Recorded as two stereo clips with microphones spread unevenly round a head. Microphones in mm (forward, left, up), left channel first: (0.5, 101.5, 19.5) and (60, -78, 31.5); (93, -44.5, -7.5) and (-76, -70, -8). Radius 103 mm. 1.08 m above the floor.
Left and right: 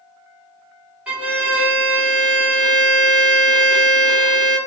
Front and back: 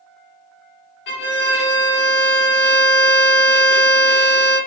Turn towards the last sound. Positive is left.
turn(degrees=10)